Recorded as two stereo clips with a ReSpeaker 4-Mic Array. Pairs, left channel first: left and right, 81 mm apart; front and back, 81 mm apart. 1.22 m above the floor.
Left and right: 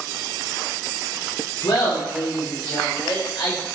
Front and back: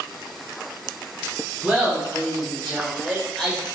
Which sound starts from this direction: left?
Laughter, at 1.6 s.